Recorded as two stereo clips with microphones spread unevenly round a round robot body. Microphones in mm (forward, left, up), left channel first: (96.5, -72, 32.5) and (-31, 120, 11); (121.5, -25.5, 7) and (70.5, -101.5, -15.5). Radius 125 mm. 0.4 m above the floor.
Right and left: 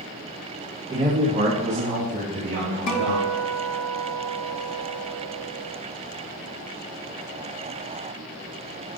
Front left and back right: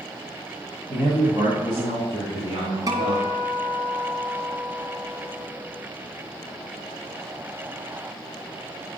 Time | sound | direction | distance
0.9 | a man speaking | 170° right | 1.8 m
2.9 | a guitar | 75° right | 2.5 m